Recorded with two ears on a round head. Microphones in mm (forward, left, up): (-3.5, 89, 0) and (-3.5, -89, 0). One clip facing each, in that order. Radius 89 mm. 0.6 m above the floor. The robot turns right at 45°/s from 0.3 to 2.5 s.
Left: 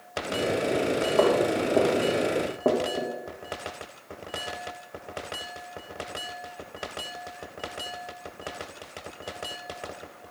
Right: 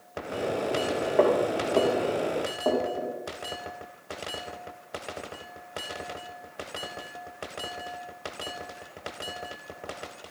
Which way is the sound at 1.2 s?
10° right (ahead or behind).